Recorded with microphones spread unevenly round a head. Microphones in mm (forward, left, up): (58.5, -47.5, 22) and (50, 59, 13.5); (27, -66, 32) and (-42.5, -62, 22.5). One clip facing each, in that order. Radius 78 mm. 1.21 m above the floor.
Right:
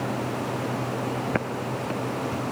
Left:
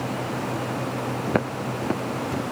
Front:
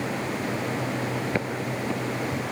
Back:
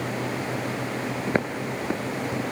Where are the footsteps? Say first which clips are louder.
Left 3 dB, back 2 dB; 155° left, 1.2 m; by 2.4 s 105° left, 1.4 m.